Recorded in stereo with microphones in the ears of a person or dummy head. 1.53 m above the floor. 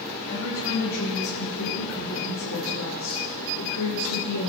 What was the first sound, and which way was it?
A woman speaking, 70° left (ahead or behind).